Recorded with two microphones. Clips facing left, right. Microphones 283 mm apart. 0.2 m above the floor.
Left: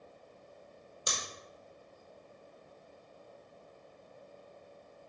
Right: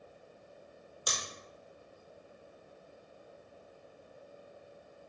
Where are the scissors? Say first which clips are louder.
Even; 25° left (ahead or behind), 1.8 m.